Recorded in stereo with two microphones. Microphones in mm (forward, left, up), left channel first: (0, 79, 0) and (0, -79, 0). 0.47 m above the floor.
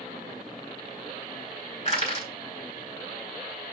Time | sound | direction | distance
1.9 | crushing | 40° left (ahead or behind) | 2 m